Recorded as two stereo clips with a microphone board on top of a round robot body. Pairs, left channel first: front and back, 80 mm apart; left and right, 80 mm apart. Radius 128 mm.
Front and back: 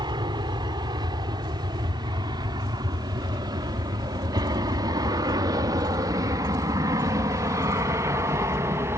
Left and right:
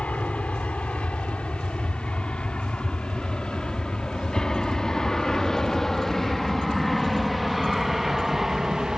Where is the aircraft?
165° left; by 9.0 s 170° right.